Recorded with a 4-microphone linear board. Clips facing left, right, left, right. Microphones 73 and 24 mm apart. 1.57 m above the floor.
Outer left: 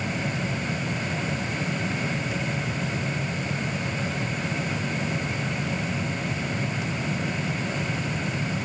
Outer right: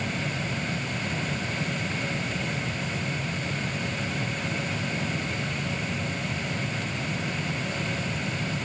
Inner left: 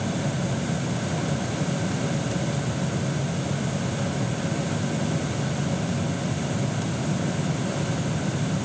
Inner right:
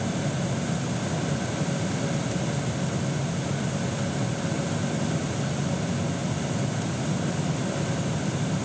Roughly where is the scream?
I don't hear a scream.